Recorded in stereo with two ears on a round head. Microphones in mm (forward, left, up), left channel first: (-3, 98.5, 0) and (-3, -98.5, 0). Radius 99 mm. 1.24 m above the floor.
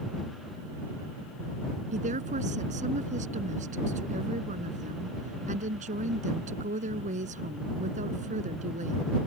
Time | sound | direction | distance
1.9 | a woman speaking | 35° right (ahead or behind) | ?